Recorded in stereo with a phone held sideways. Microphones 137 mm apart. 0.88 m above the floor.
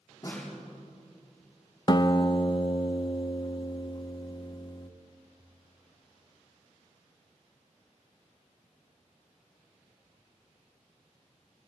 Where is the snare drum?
25° left (ahead or behind), 6.5 m.